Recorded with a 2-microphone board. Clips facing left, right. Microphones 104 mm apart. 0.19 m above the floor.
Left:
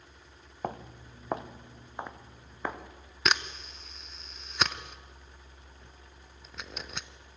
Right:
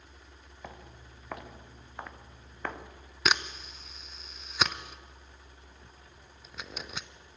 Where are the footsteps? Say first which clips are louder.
Left 10 dB; 50° left (ahead or behind), 1.2 m; by 2.8 s 10° left (ahead or behind), 1.9 m.